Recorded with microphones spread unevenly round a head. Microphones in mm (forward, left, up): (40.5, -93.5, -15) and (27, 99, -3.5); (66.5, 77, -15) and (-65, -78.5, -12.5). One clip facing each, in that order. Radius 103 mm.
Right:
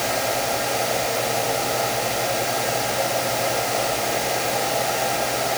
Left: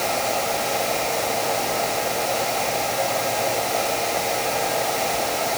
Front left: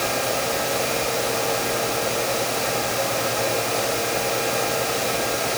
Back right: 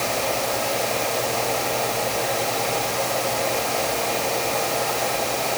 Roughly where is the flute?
I don't hear a flute.